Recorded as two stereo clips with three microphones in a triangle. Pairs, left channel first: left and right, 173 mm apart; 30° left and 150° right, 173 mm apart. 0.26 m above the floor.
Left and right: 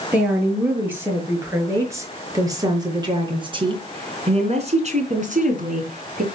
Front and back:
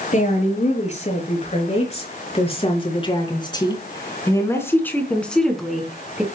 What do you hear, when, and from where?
0.1 s a woman speaking: 10° right, 5.5 m; by 6.2 s 70° right, 3.5 m